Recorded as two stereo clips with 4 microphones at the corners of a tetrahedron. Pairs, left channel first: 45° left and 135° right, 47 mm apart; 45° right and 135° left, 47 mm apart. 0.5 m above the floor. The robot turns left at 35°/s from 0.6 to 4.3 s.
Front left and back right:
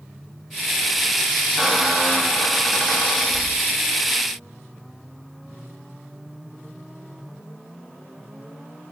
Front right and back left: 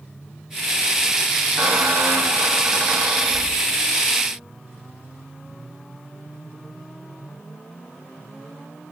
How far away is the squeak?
About 0.9 m.